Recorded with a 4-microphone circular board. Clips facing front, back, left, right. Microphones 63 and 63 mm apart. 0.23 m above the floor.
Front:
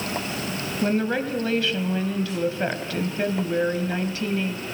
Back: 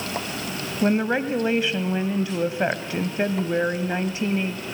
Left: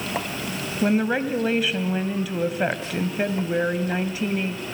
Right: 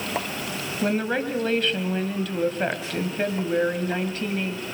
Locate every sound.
0.8 s a woman speaking: 155° left, 1.4 m